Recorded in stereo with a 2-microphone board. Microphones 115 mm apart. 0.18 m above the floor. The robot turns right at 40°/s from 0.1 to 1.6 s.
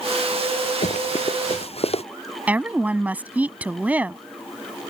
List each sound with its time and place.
0.8 s running footsteps: 90° left; by 2.0 s 65° left (ahead or behind)
2.5 s a woman speaking: 15° right (ahead or behind)